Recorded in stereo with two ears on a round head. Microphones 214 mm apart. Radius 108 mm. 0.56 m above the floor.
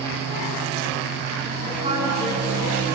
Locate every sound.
1.6 s a woman speaking: 25° right (ahead or behind), 5 m; by 2.8 s 30° right (ahead or behind), 5.5 m